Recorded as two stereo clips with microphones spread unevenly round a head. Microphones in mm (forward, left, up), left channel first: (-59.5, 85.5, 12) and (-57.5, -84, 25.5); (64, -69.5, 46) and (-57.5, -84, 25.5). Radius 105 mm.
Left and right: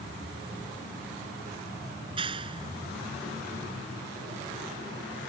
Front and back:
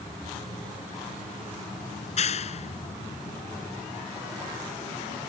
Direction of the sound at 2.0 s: 20° right.